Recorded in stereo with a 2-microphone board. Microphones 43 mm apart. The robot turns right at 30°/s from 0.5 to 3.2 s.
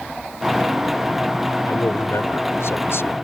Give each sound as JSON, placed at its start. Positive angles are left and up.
{"t": 1.7, "sound": "a man speaking", "azimuth_deg": 70}